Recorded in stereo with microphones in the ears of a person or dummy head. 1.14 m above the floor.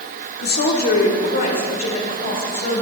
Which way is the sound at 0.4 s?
55° left (ahead or behind).